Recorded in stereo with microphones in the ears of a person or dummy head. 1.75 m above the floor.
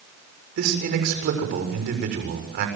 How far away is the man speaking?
About 7 m.